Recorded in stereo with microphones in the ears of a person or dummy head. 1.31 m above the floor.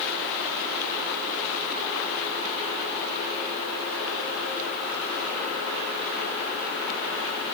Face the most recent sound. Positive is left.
No sound to turn to.